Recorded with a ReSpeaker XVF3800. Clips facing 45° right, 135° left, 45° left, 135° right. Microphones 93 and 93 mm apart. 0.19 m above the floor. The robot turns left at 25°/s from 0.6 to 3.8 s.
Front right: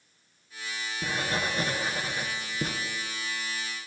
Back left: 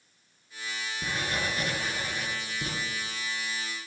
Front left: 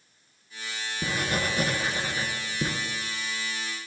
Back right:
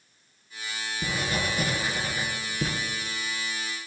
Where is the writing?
25° left, 2 m; by 2.7 s 20° right, 2 m.